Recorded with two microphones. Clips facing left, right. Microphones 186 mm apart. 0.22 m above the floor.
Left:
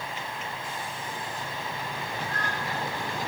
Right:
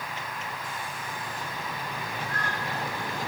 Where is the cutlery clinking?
I don't hear cutlery clinking.